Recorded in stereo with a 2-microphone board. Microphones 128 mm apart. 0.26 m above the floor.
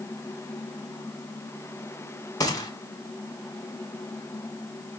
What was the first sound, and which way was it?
A gunshot, 30° left (ahead or behind).